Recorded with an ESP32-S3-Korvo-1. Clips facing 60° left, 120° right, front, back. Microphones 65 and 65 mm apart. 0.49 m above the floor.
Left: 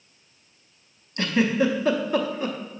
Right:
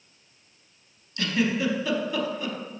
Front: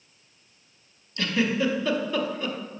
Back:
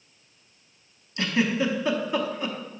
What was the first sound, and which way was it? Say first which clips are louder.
A giggle: left 4 dB, even; 110° left.